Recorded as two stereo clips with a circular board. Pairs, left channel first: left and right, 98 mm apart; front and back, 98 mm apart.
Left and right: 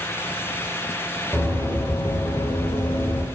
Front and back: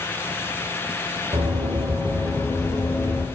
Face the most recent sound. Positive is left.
turn(degrees=45)